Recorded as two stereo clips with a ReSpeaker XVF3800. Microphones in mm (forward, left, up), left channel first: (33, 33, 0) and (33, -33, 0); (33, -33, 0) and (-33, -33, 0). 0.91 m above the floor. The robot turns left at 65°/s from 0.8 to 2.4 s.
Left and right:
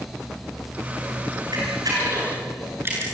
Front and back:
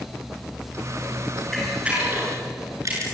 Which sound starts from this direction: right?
A camera shutter, at 1.5 s.